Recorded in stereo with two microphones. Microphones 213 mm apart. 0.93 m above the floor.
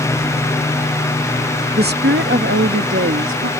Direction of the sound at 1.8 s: 45° right (ahead or behind).